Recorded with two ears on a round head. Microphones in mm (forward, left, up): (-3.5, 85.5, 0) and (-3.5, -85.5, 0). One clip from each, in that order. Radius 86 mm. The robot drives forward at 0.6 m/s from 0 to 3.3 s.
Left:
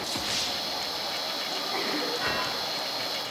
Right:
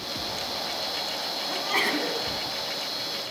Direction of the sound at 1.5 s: 65° right (ahead or behind).